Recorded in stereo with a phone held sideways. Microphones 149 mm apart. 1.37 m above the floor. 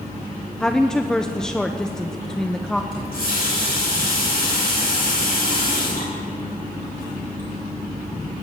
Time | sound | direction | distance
0.6 | a woman speaking | 5° left (ahead or behind) | 0.8 m
2.9 | a running tap | 75° left (ahead or behind) | 6.5 m